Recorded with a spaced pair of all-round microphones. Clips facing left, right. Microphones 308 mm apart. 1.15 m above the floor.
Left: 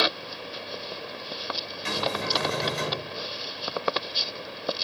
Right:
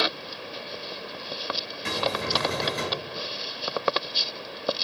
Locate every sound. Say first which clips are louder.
1.9 s a cupboard door: right 1 dB; 60° right (ahead or behind), 3.5 m